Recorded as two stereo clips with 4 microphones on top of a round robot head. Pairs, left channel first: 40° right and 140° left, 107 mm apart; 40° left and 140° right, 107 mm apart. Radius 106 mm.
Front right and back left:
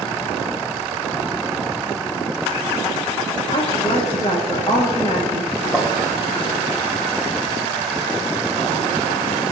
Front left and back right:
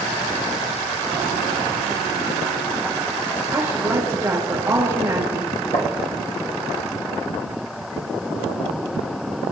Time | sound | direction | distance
3.5 | a woman speaking | 75° right | 6 m
5.7 | tapping | 30° left | 1.4 m